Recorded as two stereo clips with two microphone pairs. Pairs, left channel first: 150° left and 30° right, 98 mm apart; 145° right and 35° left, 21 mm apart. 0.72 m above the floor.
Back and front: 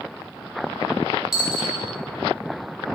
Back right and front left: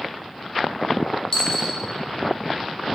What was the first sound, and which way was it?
A dropped coin, 115° right.